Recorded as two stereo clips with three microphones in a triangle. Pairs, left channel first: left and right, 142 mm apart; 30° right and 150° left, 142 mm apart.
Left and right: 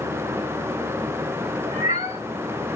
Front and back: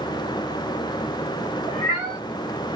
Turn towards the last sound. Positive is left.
turn(degrees=-90)